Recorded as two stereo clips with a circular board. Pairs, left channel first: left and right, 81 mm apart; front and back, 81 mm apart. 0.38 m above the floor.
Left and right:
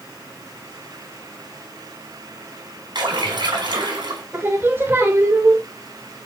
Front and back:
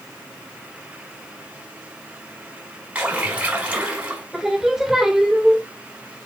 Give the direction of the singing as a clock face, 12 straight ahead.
3 o'clock.